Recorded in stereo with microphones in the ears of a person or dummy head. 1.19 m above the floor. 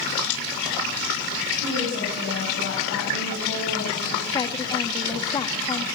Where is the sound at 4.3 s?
25° left (ahead or behind), 1.5 m.